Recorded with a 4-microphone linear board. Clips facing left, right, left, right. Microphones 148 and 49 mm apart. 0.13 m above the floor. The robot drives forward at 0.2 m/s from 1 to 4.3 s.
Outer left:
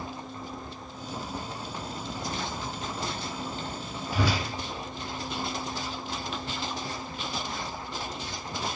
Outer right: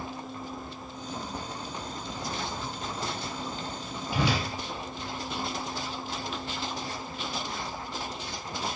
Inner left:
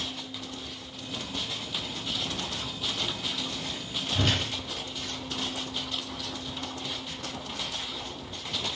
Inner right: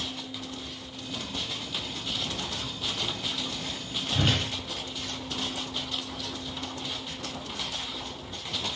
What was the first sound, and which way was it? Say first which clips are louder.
A whoosh: even, inner right 1 dB; 20° right (ahead or behind).